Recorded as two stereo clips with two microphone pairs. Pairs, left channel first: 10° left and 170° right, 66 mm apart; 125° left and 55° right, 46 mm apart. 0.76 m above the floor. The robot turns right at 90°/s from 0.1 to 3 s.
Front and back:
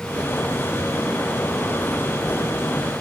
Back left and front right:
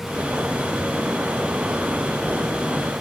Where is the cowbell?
No cowbell in this recording.